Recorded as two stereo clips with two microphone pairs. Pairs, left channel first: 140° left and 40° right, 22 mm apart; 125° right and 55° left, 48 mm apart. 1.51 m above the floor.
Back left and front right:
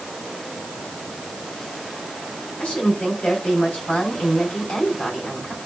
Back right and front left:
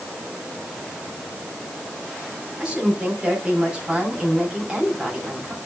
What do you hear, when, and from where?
2.6 s a woman speaking: 130° left, 6 m